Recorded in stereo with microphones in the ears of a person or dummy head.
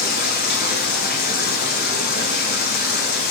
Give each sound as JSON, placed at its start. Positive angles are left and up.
{"t": 0.0, "sound": "running water", "side_deg": 45, "distance_m": 0.8}